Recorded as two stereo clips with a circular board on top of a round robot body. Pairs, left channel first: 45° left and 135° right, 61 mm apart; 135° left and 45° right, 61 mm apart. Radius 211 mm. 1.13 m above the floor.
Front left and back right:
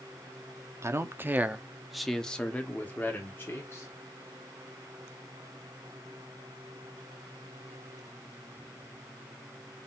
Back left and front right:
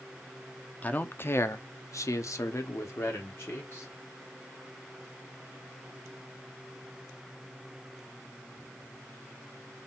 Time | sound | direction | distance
0.8 | a man speaking | 165° right | 0.9 m